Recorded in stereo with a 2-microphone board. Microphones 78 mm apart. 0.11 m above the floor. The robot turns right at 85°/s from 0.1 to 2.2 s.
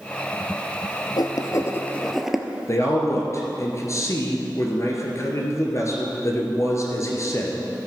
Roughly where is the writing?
Left.